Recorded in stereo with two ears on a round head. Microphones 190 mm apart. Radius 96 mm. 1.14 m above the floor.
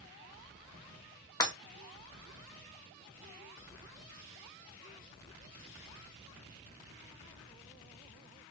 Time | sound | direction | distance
1.4 | breaking glass | 20° left (ahead or behind) | 0.7 m